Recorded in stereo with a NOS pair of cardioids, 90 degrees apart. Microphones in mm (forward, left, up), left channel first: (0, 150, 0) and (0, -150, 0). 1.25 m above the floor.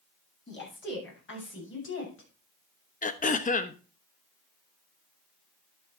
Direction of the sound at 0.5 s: 35° left.